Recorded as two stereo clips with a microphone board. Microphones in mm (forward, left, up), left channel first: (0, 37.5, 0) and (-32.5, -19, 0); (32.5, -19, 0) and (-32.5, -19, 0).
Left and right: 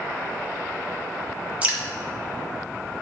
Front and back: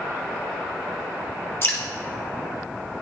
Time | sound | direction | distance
1.6 | dripping | 50° right | 1.2 m